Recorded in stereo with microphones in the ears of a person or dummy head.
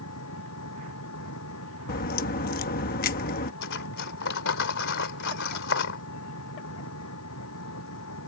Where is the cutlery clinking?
65° left (ahead or behind).